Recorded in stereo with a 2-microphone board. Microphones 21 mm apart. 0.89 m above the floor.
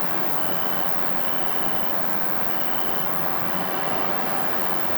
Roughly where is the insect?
Right.